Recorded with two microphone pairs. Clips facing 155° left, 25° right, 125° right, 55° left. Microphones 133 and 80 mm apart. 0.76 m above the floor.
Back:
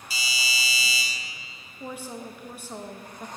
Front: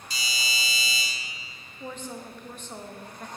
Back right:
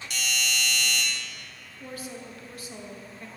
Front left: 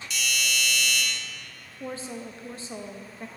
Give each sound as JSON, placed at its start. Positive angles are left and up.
{"t": 0.1, "sound": "a doorbell", "azimuth_deg": -125, "distance_m": 1.8}
{"t": 1.8, "sound": "a woman speaking", "azimuth_deg": 85, "distance_m": 0.5}